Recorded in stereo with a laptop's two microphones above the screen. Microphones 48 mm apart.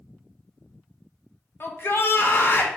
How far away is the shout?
About 1.1 m.